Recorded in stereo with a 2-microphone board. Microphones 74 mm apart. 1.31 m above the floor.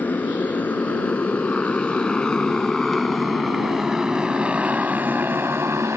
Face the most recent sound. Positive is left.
turn(degrees=-40)  # may be behind; listen again after turning